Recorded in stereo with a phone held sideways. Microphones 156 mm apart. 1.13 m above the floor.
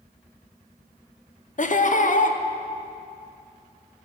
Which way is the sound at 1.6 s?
55° left (ahead or behind).